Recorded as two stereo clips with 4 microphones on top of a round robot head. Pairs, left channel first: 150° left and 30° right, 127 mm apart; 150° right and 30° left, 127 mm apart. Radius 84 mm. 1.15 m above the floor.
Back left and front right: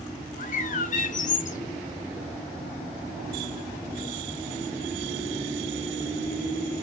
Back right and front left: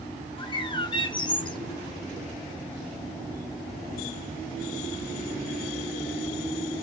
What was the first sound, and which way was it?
A bird, 160° left.